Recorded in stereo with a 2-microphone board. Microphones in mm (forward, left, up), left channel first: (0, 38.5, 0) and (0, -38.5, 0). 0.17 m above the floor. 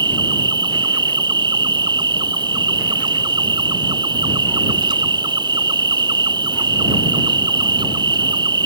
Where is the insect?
70° right (ahead or behind).